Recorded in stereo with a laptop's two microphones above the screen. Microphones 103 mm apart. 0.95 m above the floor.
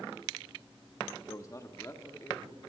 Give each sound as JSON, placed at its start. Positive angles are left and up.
{"t": 1.3, "sound": "a man speaking", "side_deg": 35, "distance_m": 1.4}